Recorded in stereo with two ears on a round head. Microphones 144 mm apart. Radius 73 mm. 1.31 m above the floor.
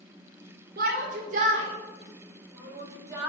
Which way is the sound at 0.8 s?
55° right (ahead or behind).